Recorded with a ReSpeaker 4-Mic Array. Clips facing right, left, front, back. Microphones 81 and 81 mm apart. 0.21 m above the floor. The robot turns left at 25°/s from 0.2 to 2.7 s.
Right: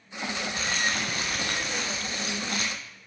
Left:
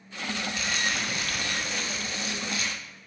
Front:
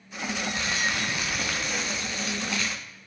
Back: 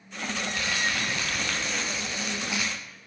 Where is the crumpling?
55° right, 2 m; by 2.7 s 110° right, 2 m.